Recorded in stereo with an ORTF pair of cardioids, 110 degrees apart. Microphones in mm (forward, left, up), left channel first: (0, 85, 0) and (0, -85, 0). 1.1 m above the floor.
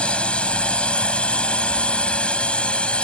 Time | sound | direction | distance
0.0 | a drone | 5° left | ?